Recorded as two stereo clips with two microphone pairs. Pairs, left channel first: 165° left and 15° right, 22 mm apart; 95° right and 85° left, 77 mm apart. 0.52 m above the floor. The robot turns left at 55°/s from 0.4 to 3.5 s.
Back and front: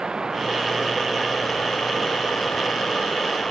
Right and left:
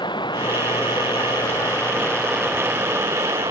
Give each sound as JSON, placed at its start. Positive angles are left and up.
{"t": 0.0, "sound": "running water", "azimuth_deg": -80}